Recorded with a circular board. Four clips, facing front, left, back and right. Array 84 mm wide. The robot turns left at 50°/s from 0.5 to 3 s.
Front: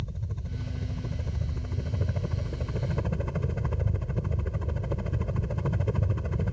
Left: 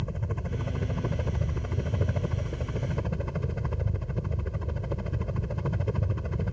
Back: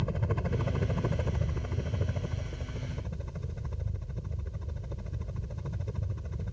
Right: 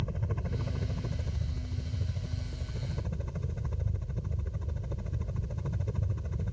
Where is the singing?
I don't hear singing.